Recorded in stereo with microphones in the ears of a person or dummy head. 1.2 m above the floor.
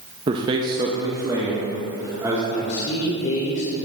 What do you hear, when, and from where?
0.3 s a man speaking: 20° right (ahead or behind), 0.6 m; by 2.4 s 15° right (ahead or behind), 2.0 m
2.5 s a man speaking: 60° left (ahead or behind), 2.5 m